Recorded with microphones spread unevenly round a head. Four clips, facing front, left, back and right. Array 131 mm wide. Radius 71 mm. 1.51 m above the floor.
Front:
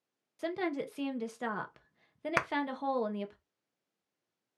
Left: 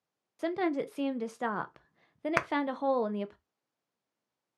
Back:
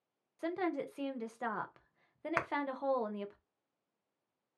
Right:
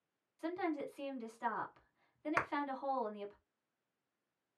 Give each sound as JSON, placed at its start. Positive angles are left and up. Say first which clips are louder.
{"t": 0.4, "sound": "a woman speaking", "louder": "left 8 dB, front 2 dB", "azimuth_deg": 70, "distance_m": 0.6}
{"t": 2.4, "sound": "a clap", "louder": "left 5 dB, front 3 dB", "azimuth_deg": 40, "distance_m": 0.6}